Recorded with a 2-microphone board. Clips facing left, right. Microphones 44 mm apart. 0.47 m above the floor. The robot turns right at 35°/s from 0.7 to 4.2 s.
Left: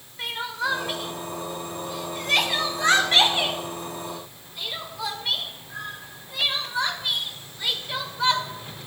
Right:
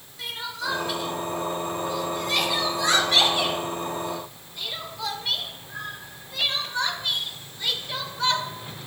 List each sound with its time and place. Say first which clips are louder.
0.2 s crying: left 4 dB; 35° left (ahead or behind), 1.1 m; by 8.4 s 10° left (ahead or behind), 1.1 m